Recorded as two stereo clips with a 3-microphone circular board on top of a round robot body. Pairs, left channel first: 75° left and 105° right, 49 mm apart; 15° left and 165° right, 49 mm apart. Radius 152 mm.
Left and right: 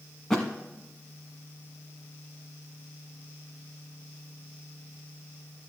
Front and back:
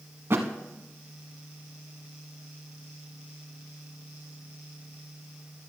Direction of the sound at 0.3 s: 160° left.